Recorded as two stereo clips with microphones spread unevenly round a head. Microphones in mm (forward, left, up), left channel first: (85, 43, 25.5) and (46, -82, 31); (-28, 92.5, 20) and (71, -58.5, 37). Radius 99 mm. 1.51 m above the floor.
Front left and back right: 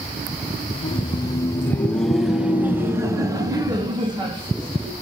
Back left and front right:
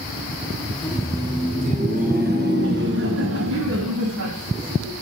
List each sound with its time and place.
0.7 s laughter: 30° left, 1.6 m; by 4.9 s 60° right, 3.5 m